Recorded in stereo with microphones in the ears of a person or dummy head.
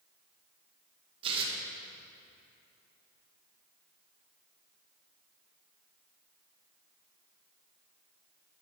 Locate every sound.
1.2 s tearing paper: 30° right (ahead or behind), 1.4 m